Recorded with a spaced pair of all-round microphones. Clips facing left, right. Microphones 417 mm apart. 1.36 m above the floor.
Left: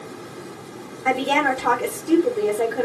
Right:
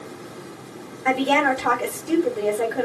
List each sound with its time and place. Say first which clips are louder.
1.1 s a woman speaking: right 1 dB; 20° left (ahead or behind), 3.5 m